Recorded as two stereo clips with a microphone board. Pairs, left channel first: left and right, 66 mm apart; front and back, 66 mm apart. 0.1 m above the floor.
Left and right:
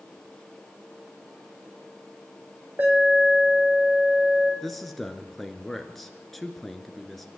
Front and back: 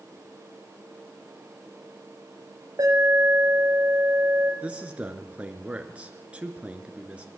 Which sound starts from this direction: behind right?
An alarm, at 2.8 s.